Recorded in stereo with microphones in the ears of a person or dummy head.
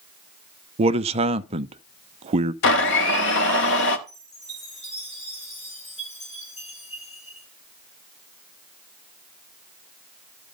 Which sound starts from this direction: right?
A man speaking, at 0.8 s.